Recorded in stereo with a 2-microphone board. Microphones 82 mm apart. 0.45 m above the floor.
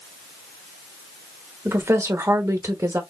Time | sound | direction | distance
1.6 | a woman speaking | 35° right (ahead or behind) | 1.3 m